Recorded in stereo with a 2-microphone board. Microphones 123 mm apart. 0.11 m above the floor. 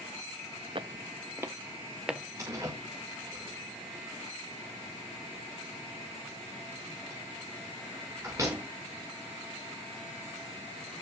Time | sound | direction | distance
0.8 | footsteps | 45° right (ahead or behind) | 0.8 m
2.4 | a door slam | 25° right (ahead or behind) | 7 m